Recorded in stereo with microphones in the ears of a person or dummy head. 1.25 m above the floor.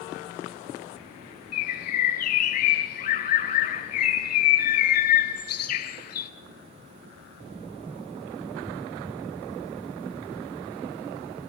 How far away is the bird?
About 1.8 m.